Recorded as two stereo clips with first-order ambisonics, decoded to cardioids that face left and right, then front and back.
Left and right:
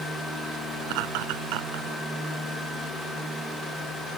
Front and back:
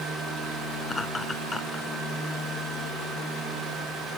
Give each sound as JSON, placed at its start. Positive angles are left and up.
{"t": 0.8, "sound": "laughter", "azimuth_deg": -80}